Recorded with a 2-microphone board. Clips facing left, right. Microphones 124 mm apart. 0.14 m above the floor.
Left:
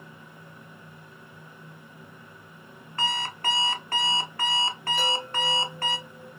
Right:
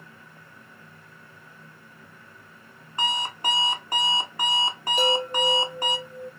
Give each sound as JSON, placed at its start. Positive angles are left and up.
{"t": 3.0, "sound": "an alarm clock", "side_deg": -15, "distance_m": 0.8}
{"t": 5.0, "sound": "a chime", "side_deg": -75, "distance_m": 3.0}